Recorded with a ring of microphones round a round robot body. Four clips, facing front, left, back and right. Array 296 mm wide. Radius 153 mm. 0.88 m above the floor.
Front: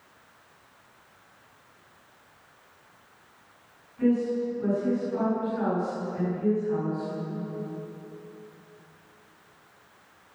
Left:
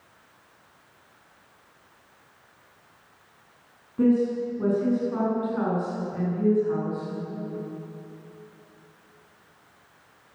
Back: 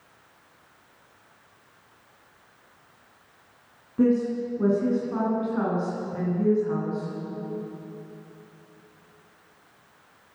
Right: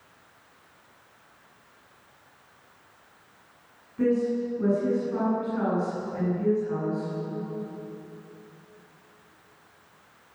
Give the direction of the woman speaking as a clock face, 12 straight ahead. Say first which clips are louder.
Left 3 dB, back 2 dB; 7 o'clock.